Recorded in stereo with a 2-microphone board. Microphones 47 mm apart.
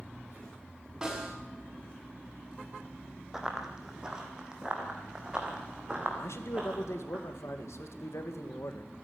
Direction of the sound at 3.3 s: 10° right (ahead or behind).